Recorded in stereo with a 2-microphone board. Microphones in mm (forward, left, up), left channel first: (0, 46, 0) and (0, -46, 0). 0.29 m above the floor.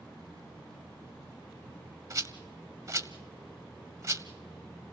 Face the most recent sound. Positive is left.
turn(degrees=-35)  # may be behind; listen again after turning